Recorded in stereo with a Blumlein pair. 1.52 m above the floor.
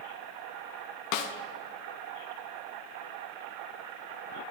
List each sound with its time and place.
1.1 s a snare drum: 45° left, 0.5 m